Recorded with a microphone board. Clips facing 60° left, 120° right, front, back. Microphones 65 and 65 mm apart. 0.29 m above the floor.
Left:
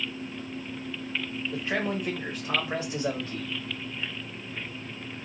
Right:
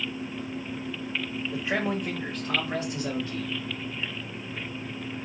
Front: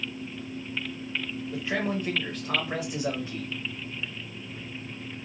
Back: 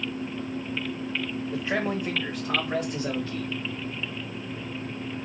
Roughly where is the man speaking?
Behind.